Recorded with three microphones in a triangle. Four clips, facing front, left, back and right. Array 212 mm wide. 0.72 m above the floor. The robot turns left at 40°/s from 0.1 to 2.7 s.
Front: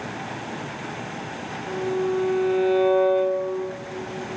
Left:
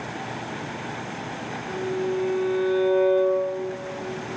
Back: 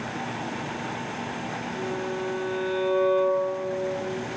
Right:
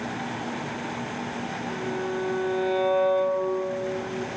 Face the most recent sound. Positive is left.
turn(degrees=-30)